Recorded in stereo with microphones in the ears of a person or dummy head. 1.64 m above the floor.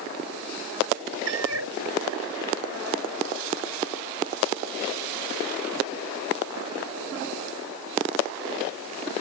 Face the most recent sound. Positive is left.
turn(degrees=-70)  # may be behind; listen again after turning